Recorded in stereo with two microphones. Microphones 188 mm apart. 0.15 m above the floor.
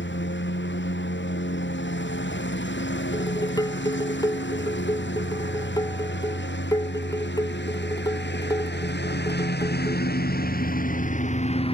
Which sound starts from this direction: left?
A lawn mower, at 0.0 s.